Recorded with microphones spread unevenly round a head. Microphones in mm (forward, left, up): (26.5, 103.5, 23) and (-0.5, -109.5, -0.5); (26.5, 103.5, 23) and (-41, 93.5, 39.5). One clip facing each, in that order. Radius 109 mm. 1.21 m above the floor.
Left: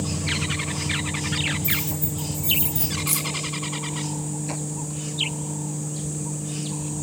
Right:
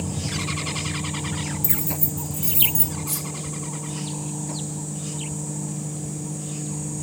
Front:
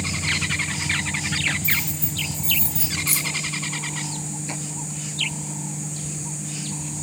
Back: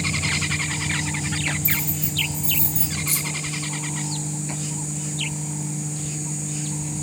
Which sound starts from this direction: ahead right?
Keys jangling, at 1.6 s.